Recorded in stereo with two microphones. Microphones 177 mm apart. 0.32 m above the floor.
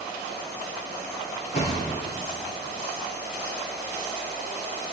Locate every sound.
1.5 s a thud: 45° left (ahead or behind), 6 m